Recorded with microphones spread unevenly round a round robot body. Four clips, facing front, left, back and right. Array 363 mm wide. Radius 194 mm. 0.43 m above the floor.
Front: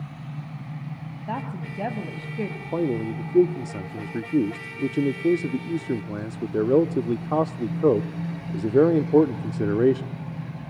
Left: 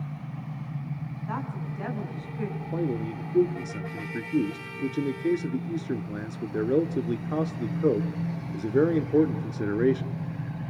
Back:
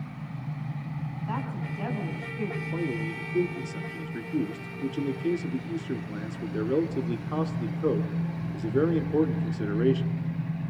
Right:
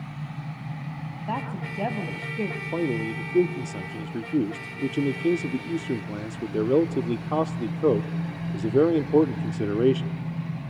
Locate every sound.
1.3 s a woman speaking: 35° right, 4 m; by 2.6 s 40° right, 3 m
2.7 s a man speaking: 15° right, 1.2 m